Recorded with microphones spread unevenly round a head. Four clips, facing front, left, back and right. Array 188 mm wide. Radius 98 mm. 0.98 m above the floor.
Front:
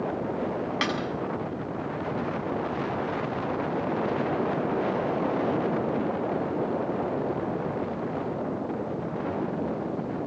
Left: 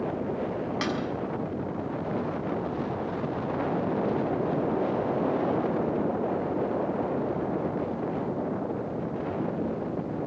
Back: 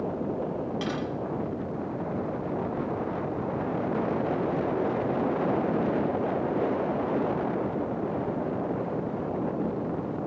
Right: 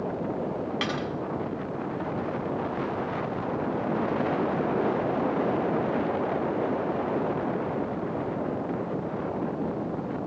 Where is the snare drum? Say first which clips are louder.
Left 2 dB, front 4 dB; 5° right, 6.5 m.